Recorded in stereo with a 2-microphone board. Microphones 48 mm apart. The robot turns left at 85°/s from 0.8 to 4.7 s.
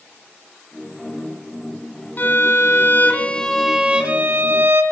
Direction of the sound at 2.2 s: 125° left.